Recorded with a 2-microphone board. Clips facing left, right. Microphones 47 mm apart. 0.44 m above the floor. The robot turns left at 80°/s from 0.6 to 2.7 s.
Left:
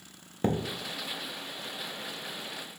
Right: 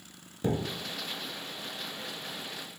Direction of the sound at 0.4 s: 40° left (ahead or behind).